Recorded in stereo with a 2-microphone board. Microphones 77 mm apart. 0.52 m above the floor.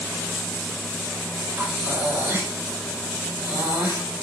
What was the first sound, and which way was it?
Breathing, 30° right (ahead or behind).